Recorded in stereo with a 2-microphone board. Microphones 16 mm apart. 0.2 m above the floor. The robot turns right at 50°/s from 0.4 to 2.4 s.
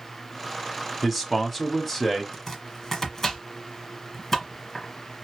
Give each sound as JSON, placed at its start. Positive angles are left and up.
{"t": 1.0, "sound": "a man speaking", "side_deg": -10, "distance_m": 1.0}
{"t": 2.3, "sound": "chopping", "side_deg": 25, "distance_m": 1.2}